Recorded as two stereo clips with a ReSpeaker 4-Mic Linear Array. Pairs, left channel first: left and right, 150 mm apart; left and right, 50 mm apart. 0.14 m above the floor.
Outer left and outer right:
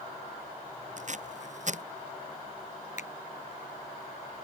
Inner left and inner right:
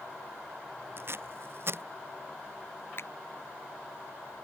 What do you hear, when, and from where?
1.0 s tape being pulled: 55° right (ahead or behind)
3.0 s a finger snap: 55° left (ahead or behind)